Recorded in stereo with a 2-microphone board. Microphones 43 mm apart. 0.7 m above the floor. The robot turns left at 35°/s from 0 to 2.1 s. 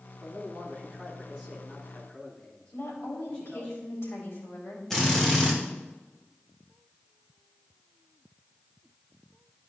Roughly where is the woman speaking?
Left.